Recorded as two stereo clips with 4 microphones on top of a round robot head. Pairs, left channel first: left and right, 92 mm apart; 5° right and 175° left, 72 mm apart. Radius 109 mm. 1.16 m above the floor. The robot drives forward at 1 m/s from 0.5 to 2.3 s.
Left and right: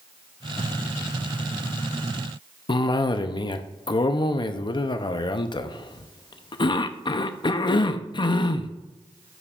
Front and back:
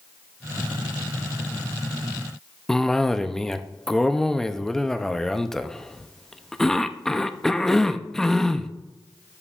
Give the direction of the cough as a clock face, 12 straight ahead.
9 o'clock.